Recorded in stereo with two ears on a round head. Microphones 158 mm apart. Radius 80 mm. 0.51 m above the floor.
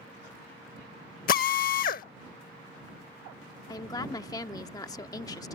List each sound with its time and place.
1.3 s a drill: 55° left (ahead or behind)
3.7 s a woman speaking: 20° left (ahead or behind)